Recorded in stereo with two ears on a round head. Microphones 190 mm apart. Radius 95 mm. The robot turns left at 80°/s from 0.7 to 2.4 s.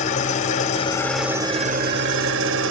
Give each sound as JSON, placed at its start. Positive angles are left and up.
{"t": 0.0, "sound": "an engine running", "azimuth_deg": 40, "distance_m": 1.0}